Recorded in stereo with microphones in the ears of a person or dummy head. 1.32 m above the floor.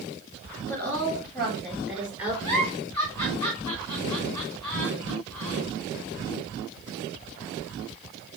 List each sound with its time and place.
0.7 s a woman speaking: 10° left (ahead or behind), 3.5 m; by 2.3 s 10° right (ahead or behind), 4 m
2.4 s a giggle: 5° left (ahead or behind), 3.5 m